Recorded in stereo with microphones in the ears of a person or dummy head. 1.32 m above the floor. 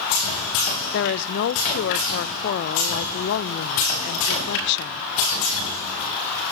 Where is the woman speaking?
55° left (ahead or behind), 1.0 m.